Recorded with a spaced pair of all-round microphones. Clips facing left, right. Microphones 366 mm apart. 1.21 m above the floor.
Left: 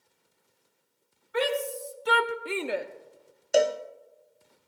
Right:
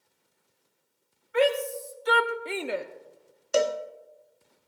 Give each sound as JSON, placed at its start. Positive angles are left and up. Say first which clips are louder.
{"t": 1.3, "sound": "a shout", "louder": "right 4 dB", "side_deg": 50, "distance_m": 1.4}
{"t": 3.5, "sound": "a cowbell", "louder": "left 2 dB", "side_deg": -10, "distance_m": 0.6}